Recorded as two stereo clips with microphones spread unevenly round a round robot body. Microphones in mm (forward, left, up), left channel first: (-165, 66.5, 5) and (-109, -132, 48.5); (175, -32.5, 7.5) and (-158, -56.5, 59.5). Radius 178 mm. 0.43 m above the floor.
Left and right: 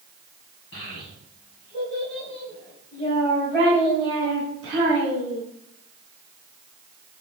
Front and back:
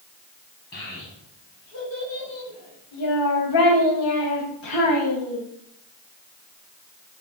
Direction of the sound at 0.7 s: 65° left.